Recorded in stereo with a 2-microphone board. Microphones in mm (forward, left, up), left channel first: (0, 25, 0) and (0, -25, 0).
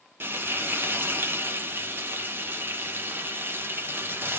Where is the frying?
50° right (ahead or behind), 0.8 m.